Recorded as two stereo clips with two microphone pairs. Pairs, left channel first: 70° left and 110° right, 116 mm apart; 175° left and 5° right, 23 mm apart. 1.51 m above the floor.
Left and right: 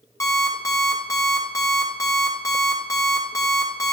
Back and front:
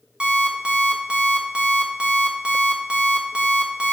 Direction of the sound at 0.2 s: 20° left.